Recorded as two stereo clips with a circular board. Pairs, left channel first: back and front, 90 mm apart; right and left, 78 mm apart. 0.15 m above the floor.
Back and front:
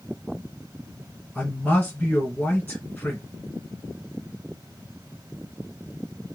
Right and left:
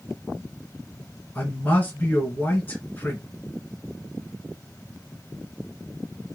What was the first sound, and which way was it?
A man speaking, 125° right.